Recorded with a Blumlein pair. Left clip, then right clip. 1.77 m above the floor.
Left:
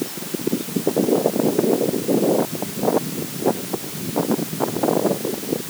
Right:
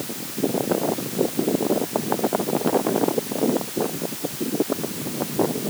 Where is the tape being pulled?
I don't hear tape being pulled.